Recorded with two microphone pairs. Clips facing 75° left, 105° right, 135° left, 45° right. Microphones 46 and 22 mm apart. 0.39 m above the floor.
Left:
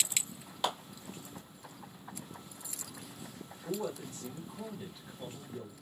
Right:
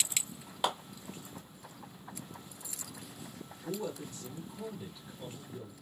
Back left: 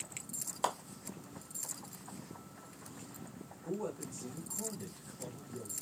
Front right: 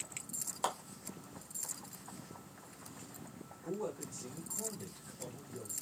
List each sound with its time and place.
0.6 s a clap: 155° right, 1.1 m
3.6 s a man speaking: 5° left, 1.8 m